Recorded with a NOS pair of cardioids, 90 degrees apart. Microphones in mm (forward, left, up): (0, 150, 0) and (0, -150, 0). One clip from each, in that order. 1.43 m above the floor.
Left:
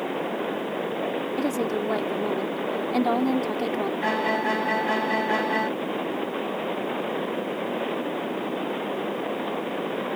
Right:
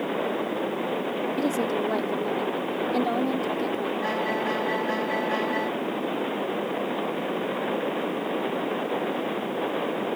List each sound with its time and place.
1.4 s a woman speaking: straight ahead; by 3.9 s 40° left
4.0 s a violin: 35° left